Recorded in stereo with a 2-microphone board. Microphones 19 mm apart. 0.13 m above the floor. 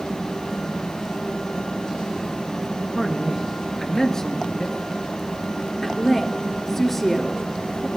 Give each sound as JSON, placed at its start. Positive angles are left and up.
{"t": 3.0, "sound": "a man speaking", "side_deg": 15, "distance_m": 1.7}
{"t": 5.8, "sound": "a woman speaking", "side_deg": 15, "distance_m": 2.5}